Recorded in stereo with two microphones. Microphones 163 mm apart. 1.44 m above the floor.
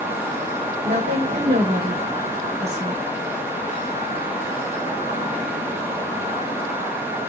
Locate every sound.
0.8 s a woman speaking: 80° right, 1.8 m